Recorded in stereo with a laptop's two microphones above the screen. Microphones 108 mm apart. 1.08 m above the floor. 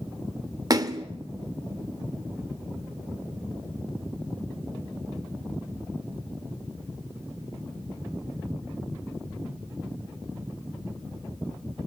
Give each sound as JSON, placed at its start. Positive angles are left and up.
{"t": 0.7, "sound": "a splash", "side_deg": -35, "distance_m": 1.1}